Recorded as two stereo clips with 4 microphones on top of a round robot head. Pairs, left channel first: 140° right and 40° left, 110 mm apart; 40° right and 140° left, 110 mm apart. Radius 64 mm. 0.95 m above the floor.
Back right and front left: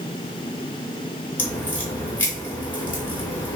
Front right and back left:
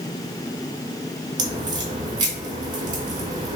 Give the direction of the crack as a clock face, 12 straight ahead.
7 o'clock.